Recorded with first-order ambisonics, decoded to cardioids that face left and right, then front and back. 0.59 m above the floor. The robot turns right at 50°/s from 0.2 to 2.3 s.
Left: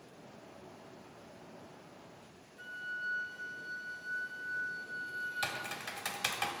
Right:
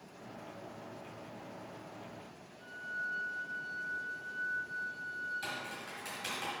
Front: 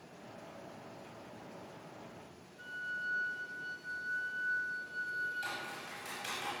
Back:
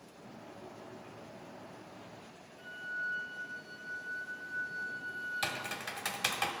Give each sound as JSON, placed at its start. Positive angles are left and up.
{"t": 2.6, "sound": "a flute", "azimuth_deg": 80, "distance_m": 1.3}
{"t": 5.4, "sound": "typing on a keyboard", "azimuth_deg": 140, "distance_m": 0.9}